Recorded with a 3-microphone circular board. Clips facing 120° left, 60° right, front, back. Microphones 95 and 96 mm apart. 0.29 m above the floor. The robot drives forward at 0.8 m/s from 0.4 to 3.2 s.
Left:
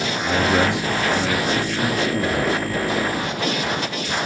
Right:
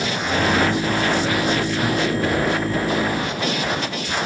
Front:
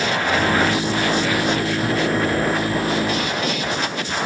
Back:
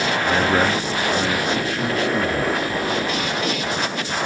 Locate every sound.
0.2 s a man speaking: 130° left, 5.5 m; by 2.6 s 145° left, 6.5 m